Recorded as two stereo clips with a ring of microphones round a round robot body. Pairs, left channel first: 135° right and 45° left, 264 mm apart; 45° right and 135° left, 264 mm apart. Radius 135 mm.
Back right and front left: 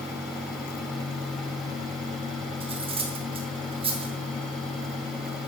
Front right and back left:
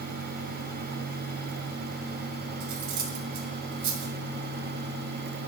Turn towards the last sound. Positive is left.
turn(degrees=115)